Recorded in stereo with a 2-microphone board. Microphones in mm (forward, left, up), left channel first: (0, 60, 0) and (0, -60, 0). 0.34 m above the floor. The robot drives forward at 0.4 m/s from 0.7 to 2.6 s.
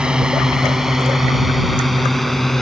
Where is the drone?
5° right (ahead or behind); by 2.6 s centre (ahead or behind).